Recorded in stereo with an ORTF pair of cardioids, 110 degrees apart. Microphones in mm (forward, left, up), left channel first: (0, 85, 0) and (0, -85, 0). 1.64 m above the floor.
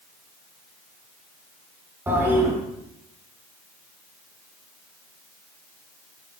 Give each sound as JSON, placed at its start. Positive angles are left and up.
{"t": 2.1, "sound": "a toilet flushing", "azimuth_deg": -15, "distance_m": 3.0}